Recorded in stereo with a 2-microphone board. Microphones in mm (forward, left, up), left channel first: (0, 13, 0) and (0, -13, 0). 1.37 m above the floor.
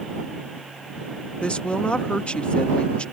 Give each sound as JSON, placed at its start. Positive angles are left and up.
{"t": 1.4, "sound": "a woman speaking", "side_deg": 45}